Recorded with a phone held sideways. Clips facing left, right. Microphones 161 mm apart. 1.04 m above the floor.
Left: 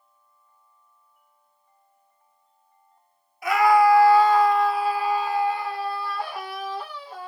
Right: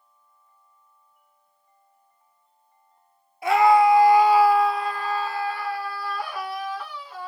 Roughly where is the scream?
Right.